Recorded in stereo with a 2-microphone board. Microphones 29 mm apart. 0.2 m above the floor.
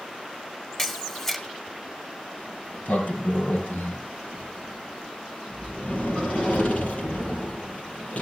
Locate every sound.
0.8 s a camera shutter: 15° left (ahead or behind), 1.6 m
2.4 s a sliding door: 55° left (ahead or behind), 4.5 m